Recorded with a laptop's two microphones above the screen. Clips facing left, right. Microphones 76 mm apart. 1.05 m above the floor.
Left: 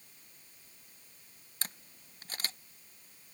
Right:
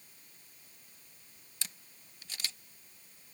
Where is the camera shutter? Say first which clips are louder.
Left 4 dB; 45° left (ahead or behind).